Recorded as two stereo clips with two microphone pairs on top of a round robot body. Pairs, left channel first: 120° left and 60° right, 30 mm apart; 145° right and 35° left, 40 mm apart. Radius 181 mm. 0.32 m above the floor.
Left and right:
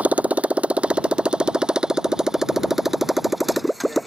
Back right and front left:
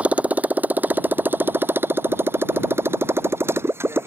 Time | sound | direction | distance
0.0 | a motorcycle | 20° right | ?